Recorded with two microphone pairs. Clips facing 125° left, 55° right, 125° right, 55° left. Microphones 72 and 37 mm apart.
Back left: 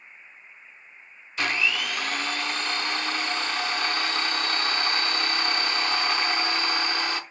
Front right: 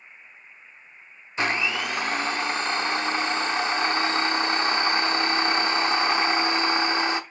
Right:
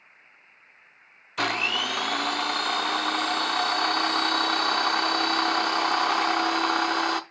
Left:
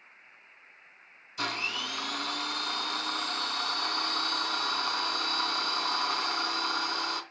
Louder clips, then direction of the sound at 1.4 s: Front right 1 dB, right 7 dB; 115° right.